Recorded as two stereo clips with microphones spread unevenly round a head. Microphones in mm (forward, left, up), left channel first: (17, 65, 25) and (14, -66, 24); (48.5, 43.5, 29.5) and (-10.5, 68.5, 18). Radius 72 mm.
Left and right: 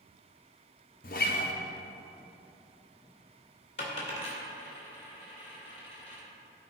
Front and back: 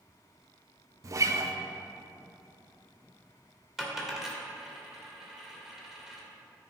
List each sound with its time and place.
1.0 s a guitar: 120° left, 0.8 m
3.8 s a dropped coin: 65° left, 2.0 m